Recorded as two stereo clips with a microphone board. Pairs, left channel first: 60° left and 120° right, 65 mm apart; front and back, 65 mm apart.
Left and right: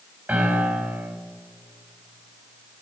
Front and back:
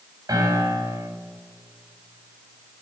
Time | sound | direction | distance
0.3 | a piano | 175° left | 2 m